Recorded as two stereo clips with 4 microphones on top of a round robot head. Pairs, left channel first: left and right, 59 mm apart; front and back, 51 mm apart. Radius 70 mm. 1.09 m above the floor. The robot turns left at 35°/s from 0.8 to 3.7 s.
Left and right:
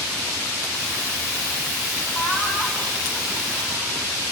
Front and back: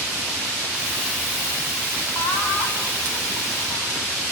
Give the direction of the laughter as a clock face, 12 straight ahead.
11 o'clock.